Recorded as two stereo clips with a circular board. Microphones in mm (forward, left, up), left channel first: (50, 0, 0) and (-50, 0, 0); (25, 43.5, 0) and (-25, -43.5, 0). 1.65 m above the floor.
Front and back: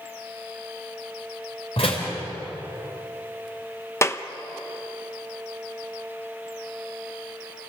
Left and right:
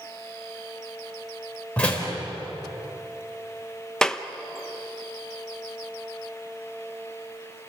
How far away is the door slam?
About 4.5 m.